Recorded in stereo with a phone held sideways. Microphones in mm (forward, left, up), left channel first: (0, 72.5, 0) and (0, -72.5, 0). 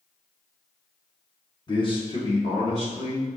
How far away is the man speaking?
About 1.0 m.